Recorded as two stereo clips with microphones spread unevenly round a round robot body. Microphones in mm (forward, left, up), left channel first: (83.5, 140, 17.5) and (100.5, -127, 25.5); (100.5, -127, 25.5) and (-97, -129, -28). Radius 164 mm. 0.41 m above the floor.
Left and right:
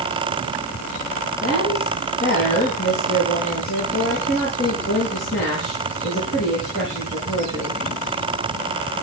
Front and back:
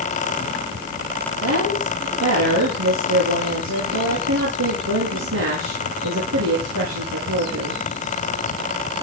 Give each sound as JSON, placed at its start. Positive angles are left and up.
{"t": 1.4, "sound": "a woman speaking", "azimuth_deg": 155, "distance_m": 7.0}